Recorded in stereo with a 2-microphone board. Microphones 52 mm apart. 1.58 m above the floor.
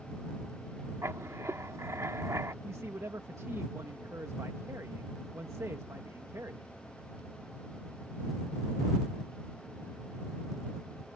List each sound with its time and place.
1.0 s writing: 75° right (ahead or behind)
2.6 s a man speaking: 80° right